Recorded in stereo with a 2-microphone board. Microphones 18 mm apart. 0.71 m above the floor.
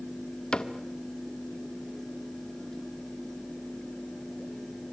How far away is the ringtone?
I don't hear a ringtone.